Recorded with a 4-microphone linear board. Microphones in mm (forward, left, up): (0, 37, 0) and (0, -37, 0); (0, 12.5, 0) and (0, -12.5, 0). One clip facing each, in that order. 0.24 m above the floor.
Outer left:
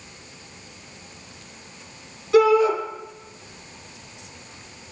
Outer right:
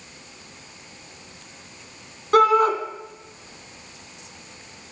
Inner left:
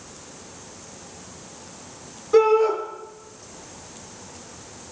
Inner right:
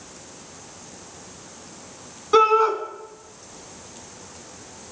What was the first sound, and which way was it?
A shout, 55° right (ahead or behind).